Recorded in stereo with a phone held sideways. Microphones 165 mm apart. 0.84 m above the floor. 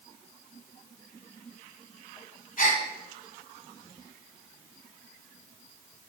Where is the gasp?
55° left (ahead or behind), 1.9 m.